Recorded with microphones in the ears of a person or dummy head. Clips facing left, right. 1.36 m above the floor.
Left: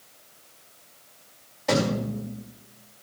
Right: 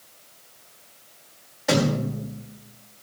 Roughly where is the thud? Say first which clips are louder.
Right 2 dB; centre.